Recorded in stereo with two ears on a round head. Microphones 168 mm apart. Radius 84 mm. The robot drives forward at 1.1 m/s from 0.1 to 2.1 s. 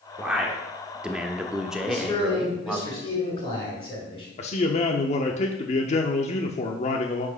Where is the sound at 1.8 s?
35° left (ahead or behind), 4 m; by 4.3 s 30° left (ahead or behind), 4.5 m.